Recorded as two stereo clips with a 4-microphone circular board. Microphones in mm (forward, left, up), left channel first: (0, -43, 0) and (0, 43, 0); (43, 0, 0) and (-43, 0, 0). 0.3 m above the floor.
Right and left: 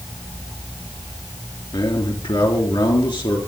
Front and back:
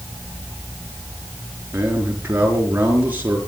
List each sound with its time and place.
1.7 s a man speaking: 110° right, 5.5 m